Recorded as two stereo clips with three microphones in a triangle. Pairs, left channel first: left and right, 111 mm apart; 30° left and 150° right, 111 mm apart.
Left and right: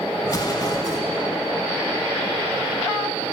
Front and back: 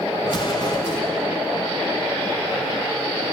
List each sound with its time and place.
0.2 s an explosion: 50° left, 1.7 m